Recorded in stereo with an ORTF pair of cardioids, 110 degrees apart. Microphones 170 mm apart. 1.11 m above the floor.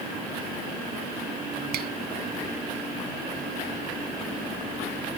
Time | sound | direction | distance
1.7 | a finger snap | 65° right | ?